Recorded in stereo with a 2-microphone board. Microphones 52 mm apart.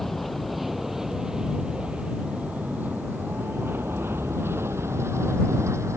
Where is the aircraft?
Centre (ahead or behind); by 6.0 s 65° right (ahead or behind).